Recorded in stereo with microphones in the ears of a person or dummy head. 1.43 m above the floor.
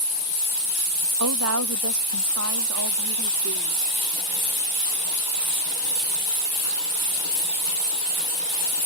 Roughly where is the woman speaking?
Right.